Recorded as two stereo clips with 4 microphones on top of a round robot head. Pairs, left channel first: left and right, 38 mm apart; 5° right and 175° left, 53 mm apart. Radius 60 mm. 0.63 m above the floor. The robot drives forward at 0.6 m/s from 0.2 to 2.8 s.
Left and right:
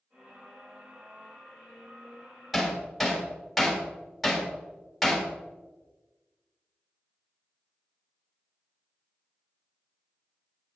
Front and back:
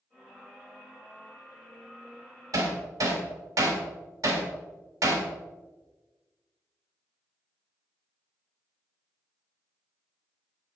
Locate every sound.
2.5 s hammering: 175° left, 2.0 m; by 5.3 s straight behind, 2 m